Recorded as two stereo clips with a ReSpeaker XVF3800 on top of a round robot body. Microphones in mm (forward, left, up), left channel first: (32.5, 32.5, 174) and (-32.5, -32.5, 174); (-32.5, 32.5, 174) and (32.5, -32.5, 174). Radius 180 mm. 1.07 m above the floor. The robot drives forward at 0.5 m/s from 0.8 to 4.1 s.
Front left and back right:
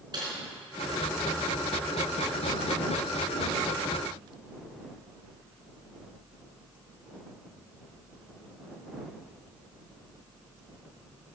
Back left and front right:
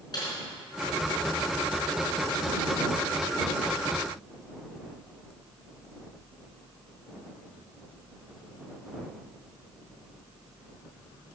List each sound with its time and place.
0.1 s typing on a keyboard: straight behind, 4 m